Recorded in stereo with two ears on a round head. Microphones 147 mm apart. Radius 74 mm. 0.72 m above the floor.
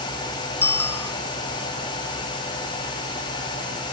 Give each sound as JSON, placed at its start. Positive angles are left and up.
{"t": 0.6, "sound": "a bicycle bell", "side_deg": 15}